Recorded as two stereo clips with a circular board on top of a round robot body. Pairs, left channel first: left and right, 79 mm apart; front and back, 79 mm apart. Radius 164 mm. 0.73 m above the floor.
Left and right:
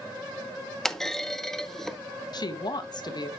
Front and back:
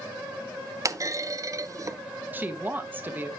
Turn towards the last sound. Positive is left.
turn(degrees=115)